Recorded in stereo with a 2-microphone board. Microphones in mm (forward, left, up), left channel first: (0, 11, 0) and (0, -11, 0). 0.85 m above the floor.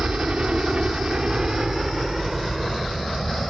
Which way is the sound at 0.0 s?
60° right (ahead or behind).